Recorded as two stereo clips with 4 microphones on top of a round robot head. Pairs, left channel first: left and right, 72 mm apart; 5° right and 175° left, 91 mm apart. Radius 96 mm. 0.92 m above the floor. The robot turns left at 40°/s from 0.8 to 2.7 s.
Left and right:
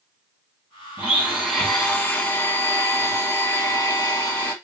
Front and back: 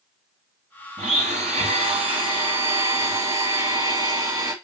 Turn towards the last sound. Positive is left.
turn(degrees=140)